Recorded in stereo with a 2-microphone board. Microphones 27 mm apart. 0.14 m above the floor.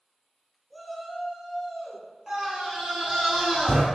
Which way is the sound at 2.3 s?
20° right (ahead or behind).